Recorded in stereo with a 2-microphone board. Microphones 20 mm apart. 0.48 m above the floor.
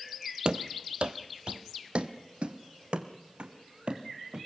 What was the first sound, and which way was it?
Running footsteps, 45° right (ahead or behind).